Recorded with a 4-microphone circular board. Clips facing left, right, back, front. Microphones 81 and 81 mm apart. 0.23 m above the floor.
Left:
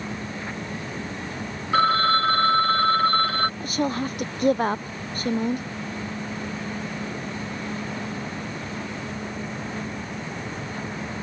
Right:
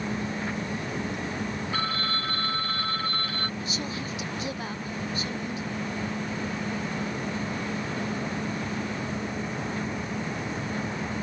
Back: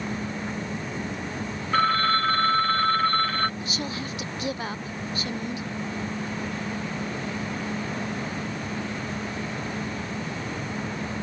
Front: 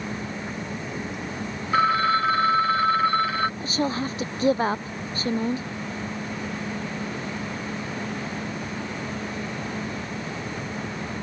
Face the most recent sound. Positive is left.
turn(degrees=50)